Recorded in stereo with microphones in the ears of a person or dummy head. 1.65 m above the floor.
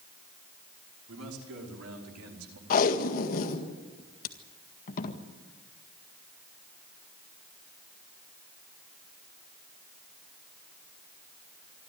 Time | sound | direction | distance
1.1 | a man speaking | 90° right | 5.5 m
2.7 | tape being pulled | 45° left (ahead or behind) | 1.8 m